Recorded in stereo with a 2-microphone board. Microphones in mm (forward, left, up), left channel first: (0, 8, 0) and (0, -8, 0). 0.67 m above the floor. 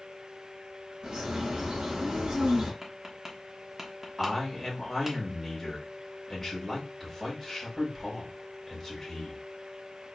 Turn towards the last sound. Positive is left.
turn(degrees=15)  # may be behind; listen again after turning